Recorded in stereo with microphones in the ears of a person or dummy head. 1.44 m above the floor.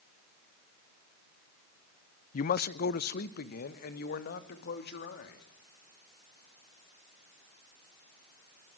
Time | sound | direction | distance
2.3 | a man speaking | 45° left (ahead or behind) | 0.5 m